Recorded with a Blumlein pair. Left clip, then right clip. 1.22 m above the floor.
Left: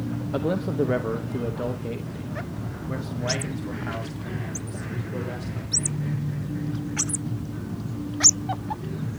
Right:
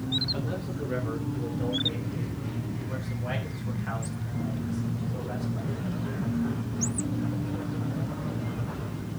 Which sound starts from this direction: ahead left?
A man speaking, at 0.3 s.